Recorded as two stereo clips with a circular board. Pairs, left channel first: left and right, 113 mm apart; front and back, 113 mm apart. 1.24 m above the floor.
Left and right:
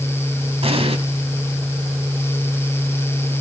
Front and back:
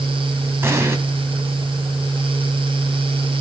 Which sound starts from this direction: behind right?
An explosion, at 0.6 s.